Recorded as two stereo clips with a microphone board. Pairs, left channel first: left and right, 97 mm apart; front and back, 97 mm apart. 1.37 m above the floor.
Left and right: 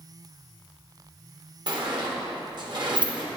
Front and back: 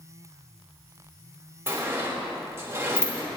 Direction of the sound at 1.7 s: 120° right.